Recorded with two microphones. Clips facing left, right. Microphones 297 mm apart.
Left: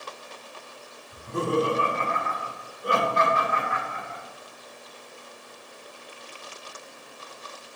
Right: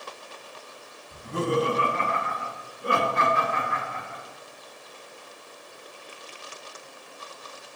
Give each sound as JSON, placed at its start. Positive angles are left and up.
{"t": 1.1, "sound": "laughter", "side_deg": -80, "distance_m": 2.5}